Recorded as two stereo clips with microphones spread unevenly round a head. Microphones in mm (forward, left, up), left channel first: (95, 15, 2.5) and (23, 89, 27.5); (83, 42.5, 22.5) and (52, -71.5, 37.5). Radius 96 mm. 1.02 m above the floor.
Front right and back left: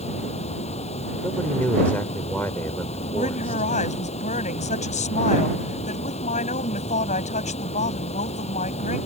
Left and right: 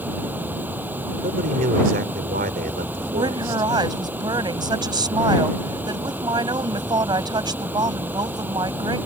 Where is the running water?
30° right.